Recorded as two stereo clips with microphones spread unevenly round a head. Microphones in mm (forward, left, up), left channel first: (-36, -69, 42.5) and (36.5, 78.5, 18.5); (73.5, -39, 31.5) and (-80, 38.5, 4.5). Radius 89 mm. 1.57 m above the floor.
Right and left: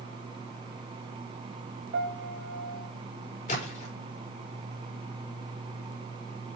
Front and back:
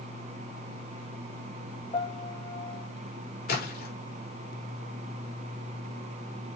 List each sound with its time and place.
1.9 s a piano: 40° left, 1.8 m
3.5 s a splash: 65° right, 5 m